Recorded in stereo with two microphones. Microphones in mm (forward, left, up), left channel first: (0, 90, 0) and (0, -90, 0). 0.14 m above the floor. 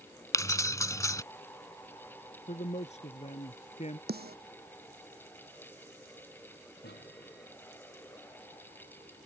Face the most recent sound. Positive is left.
turn(degrees=70)  # may be behind; listen again after turning